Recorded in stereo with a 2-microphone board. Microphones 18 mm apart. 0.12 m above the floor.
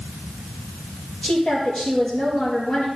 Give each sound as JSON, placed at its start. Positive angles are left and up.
{"t": 1.2, "sound": "a woman speaking", "side_deg": 65, "distance_m": 3.0}